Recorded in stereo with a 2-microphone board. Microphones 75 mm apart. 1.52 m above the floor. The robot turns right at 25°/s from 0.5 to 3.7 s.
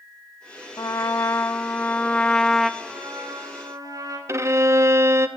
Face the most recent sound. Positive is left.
turn(degrees=-35)  # may be behind; listen again after turning